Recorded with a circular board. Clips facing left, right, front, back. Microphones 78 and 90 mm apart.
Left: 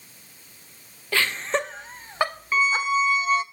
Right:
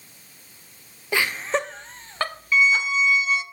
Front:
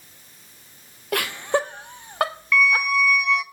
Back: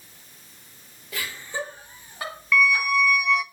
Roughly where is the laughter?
Ahead.